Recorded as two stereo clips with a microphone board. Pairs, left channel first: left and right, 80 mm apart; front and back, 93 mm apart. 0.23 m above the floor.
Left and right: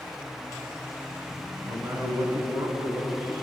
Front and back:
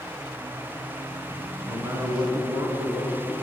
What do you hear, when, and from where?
1.7 s a man speaking: 130° right, 1.8 m